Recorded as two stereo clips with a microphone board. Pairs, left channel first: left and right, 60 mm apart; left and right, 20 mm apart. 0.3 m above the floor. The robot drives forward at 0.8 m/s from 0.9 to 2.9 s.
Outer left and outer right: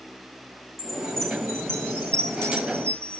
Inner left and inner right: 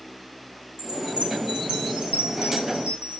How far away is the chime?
About 9 m.